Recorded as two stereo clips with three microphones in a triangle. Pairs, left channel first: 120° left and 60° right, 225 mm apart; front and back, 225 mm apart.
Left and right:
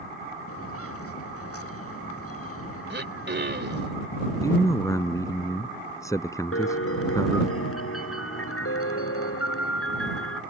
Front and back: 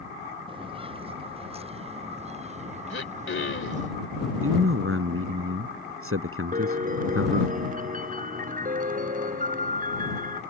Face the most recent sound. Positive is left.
turn(degrees=125)